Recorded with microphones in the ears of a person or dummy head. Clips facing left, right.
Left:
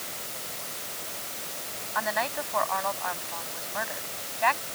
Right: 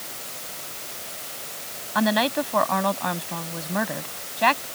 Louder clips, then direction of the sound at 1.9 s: Right 9 dB; 50° right (ahead or behind).